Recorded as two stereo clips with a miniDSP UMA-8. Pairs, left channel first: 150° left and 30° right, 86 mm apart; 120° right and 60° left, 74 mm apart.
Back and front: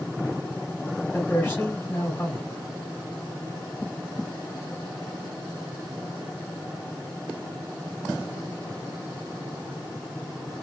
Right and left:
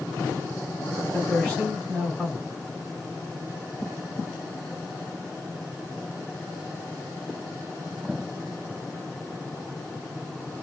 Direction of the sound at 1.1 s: 175° right.